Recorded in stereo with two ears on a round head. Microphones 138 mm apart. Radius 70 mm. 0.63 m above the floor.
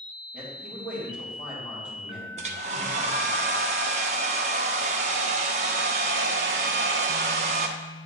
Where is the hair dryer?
45° right (ahead or behind), 0.6 m.